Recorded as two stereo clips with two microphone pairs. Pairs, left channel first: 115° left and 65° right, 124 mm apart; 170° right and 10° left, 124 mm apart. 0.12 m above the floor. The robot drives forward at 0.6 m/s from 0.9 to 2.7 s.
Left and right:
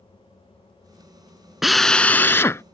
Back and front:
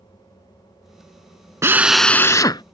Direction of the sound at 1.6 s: 20° left.